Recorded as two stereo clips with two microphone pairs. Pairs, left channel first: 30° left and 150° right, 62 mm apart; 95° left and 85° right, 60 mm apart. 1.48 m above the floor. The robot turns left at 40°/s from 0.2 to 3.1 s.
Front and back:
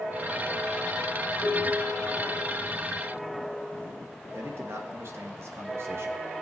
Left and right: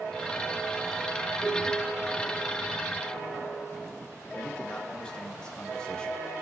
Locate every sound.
1.4 s a piano: 5° left, 7 m; by 3.9 s 65° right, 7 m
4.3 s a man speaking: 170° left, 1.9 m